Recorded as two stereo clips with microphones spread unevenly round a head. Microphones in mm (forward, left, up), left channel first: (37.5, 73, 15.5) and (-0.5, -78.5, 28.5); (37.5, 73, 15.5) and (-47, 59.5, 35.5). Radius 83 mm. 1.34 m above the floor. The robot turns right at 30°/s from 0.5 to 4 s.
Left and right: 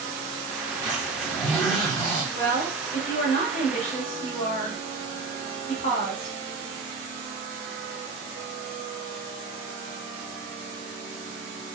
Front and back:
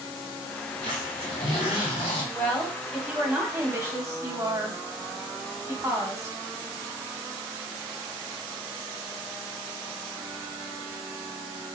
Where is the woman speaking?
85° left, 1.8 m; by 6.4 s 135° left, 1.8 m.